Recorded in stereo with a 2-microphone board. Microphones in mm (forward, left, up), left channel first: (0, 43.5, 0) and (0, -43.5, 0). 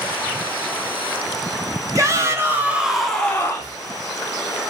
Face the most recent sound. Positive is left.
turn(degrees=35)  # may be behind; listen again after turning